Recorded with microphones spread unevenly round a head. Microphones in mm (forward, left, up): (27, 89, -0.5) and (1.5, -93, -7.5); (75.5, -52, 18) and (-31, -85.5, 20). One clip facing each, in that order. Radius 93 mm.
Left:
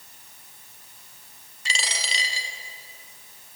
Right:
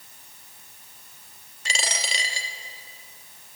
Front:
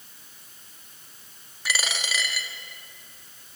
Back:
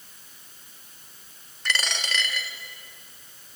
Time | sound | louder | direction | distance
1.6 | a dropped coin | right 2 dB, back 1 dB | 65° right | 1.0 m